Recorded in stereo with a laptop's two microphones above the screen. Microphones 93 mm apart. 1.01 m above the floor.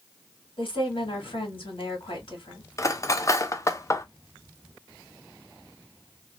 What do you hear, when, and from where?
0.6 s a woman speaking: 65° left (ahead or behind), 1.9 m
2.8 s cutlery clinking: 35° left (ahead or behind), 0.6 m